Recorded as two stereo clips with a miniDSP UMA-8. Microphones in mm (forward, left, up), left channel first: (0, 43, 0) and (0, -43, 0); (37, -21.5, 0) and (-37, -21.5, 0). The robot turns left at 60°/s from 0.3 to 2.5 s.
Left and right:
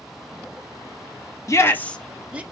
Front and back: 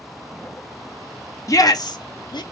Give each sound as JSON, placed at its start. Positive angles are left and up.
{"t": 1.5, "sound": "a shout", "azimuth_deg": 40, "distance_m": 0.7}